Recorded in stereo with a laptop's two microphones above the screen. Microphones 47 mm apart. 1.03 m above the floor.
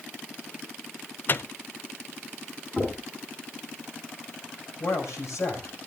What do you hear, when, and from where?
1.3 s a microwave: 45° left (ahead or behind), 0.5 m
2.8 s knocking: 30° left (ahead or behind), 9.5 m
4.8 s a man speaking: 80° left, 6 m